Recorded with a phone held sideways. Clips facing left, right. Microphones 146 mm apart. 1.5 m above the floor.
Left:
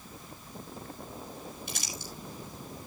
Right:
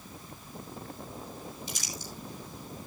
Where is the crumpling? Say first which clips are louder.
Even; 70° left (ahead or behind), 6.5 m.